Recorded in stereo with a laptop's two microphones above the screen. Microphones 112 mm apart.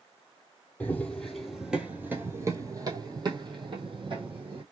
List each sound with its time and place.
0.8 s running footsteps: 15° left (ahead or behind), 1.2 m; by 4.6 s 50° right (ahead or behind), 1.9 m